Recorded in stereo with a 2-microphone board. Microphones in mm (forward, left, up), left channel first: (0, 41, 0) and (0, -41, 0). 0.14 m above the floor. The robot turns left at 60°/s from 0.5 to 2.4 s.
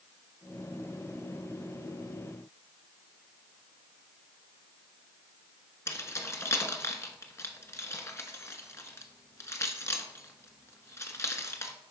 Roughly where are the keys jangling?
Left.